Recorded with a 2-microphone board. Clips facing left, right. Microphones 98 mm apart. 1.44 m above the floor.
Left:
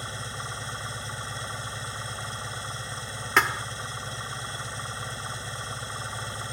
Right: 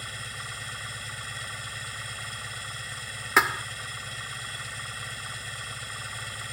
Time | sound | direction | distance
0.0 | an engine running | 30° left (ahead or behind) | ?
3.4 | a thud | 5° right (ahead or behind) | ?